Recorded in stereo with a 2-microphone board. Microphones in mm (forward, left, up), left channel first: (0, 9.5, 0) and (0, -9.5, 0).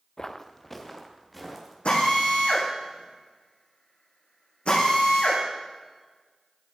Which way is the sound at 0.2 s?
30° left (ahead or behind).